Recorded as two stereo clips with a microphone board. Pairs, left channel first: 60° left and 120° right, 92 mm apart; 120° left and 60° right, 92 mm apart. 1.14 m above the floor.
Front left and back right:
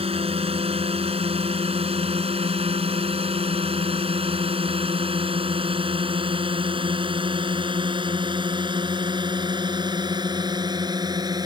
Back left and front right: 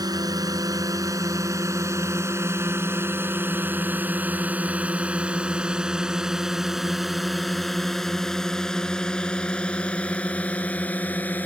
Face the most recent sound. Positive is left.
turn(degrees=-165)